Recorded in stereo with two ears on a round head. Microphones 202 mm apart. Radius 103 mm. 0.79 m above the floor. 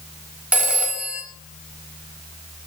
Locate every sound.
0.5 s a phone ringing: 5° right (ahead or behind), 1.3 m